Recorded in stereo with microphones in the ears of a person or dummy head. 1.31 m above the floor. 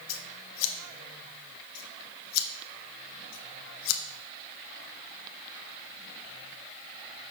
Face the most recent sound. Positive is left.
turn(degrees=70)  # may be behind; listen again after turning